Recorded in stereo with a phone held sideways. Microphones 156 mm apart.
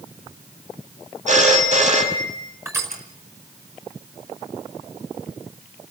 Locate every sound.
1.3 s a phone ringing: 50° right (ahead or behind), 4.5 m
2.6 s crushing: 15° right (ahead or behind), 5 m